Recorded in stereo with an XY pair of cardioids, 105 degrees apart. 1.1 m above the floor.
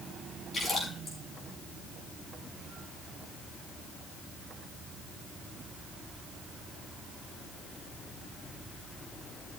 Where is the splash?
35° left, 7 m.